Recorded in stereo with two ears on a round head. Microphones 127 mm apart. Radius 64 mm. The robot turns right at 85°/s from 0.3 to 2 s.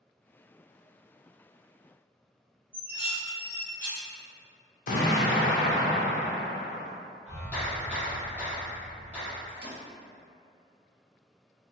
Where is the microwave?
75° right (ahead or behind), 1.2 m.